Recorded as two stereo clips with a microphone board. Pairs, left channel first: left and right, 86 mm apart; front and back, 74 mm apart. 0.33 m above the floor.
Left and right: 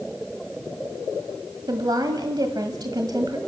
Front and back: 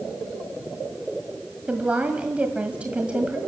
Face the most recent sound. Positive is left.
turn(degrees=-110)